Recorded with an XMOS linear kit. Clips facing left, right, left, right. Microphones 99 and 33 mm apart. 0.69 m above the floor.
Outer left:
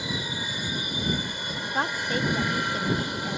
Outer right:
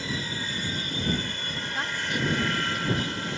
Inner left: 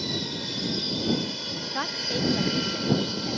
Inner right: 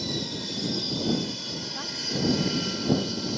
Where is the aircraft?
15° left (ahead or behind).